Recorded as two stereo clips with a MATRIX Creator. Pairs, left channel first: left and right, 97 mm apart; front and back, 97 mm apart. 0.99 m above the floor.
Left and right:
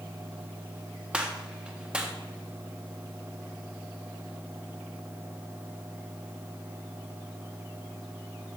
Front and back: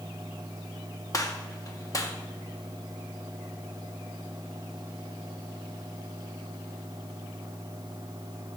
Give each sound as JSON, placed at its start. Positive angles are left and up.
{"t": 1.1, "sound": "a gunshot", "azimuth_deg": -15, "distance_m": 0.9}